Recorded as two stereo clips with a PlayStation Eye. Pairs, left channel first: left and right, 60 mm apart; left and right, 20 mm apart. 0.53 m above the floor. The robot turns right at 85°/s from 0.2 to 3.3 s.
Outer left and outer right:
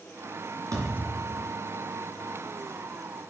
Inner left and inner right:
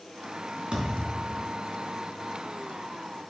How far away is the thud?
About 2.5 m.